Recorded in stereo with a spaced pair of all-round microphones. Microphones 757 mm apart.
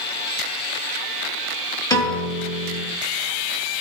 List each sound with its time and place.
1.9 s a piano: 5° left (ahead or behind), 3 m